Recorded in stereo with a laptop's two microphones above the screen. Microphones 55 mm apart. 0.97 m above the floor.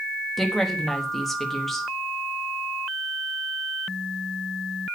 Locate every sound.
0.4 s a woman speaking: 5° left (ahead or behind), 1.2 m